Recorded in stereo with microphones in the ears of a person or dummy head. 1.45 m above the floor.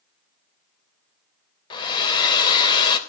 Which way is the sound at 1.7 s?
35° left (ahead or behind).